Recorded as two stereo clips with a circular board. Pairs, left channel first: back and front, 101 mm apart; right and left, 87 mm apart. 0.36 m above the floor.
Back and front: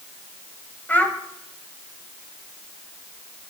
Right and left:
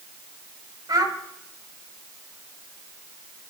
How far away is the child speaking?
About 1.3 m.